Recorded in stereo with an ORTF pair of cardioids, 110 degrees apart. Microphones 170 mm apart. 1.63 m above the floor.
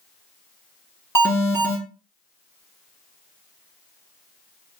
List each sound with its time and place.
1.1 s an alarm: 20° left, 3.5 m